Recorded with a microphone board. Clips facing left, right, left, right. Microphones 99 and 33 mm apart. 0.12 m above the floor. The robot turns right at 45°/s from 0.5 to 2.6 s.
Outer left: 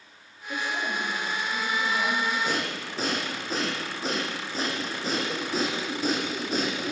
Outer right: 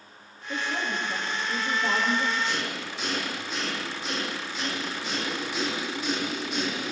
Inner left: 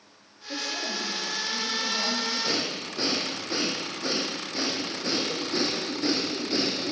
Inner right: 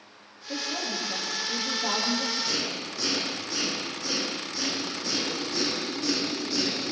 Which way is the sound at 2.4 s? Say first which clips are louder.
Outer left 1 dB, inner left 1 dB; 45° left (ahead or behind).